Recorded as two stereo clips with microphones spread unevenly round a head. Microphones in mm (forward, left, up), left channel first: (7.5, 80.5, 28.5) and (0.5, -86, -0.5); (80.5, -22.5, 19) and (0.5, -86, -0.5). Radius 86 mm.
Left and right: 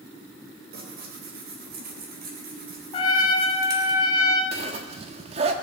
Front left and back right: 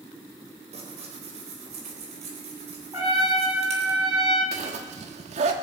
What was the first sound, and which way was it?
Tearing paper, 130° right.